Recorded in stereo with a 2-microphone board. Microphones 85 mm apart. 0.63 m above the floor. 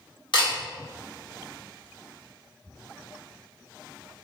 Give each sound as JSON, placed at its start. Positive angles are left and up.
{"t": 0.3, "sound": "a camera shutter", "side_deg": 65, "distance_m": 1.2}